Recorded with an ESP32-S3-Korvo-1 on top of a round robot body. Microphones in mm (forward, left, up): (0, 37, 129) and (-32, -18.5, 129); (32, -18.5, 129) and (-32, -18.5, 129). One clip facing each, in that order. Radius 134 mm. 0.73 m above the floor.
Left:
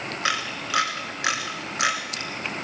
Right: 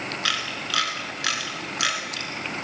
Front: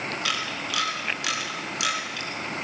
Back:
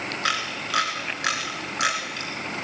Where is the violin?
I don't hear a violin.